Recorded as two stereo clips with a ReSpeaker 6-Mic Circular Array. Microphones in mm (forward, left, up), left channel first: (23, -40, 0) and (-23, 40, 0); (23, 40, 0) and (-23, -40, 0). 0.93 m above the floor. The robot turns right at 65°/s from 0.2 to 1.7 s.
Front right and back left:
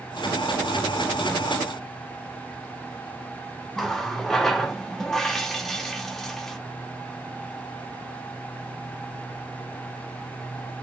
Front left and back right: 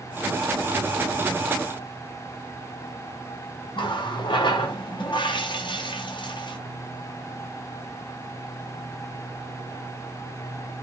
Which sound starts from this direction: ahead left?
A running tap, at 3.8 s.